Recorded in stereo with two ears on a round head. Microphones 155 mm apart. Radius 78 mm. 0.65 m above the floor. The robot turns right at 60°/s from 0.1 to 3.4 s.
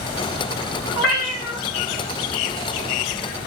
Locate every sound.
0.9 s a cat meowing: 70° left, 1.7 m; by 1.6 s 105° left, 1.7 m